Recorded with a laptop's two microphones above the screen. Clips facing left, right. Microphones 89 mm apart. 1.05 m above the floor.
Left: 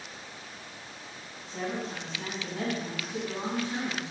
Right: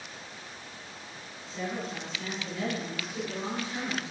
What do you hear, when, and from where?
1.5 s a woman speaking: 45° left (ahead or behind), 7 m